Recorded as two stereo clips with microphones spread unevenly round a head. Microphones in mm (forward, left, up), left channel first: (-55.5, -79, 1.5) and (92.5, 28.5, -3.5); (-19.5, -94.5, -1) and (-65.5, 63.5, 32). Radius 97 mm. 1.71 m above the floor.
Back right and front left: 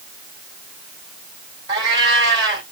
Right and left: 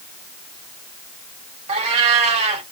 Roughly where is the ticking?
I don't hear ticking.